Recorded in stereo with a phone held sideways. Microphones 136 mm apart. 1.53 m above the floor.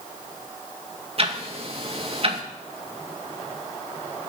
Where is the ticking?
45° right (ahead or behind), 2.0 m.